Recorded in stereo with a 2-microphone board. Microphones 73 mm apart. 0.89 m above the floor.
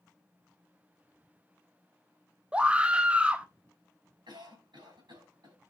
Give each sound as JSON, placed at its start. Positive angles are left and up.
{"t": 2.5, "sound": "a scream", "side_deg": -15, "distance_m": 0.8}
{"t": 4.3, "sound": "a cough", "side_deg": -85, "distance_m": 5.5}